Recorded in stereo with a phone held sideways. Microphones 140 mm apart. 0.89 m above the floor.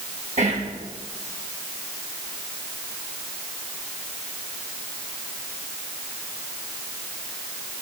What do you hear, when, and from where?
0.4 s whispering: 55° right (ahead or behind), 0.9 m